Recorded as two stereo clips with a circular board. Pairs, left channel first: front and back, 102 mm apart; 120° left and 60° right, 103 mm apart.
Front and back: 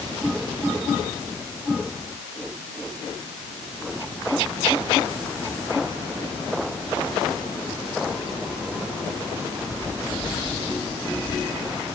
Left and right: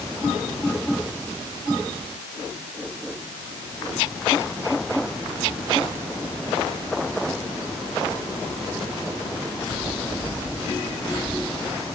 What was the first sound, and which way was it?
Only background noise.